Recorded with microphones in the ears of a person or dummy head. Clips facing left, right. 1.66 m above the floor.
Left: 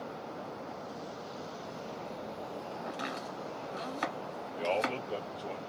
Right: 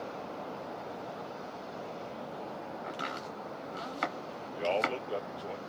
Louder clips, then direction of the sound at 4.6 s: Right 1 dB; centre (ahead or behind).